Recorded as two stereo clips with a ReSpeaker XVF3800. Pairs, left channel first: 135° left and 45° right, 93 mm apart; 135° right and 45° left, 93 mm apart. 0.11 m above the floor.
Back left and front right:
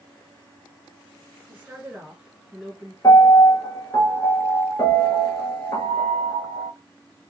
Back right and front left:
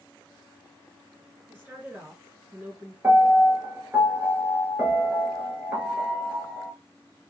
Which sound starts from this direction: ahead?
A woman speaking, at 1.5 s.